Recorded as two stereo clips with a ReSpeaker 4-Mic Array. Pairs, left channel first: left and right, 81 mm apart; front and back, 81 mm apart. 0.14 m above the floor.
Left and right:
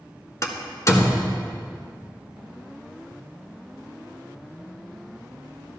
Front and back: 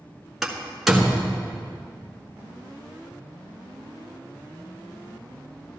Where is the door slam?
95° left, 1.4 m.